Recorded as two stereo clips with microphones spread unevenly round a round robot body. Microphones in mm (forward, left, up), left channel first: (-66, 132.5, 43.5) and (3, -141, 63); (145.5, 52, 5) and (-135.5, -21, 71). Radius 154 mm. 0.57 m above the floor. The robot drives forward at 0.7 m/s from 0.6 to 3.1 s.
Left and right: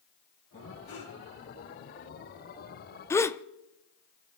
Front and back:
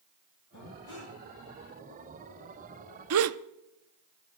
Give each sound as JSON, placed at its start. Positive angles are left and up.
{"t": 0.5, "sound": "breathing", "azimuth_deg": 35, "distance_m": 9.5}
{"t": 3.1, "sound": "a gasp", "azimuth_deg": 175, "distance_m": 0.8}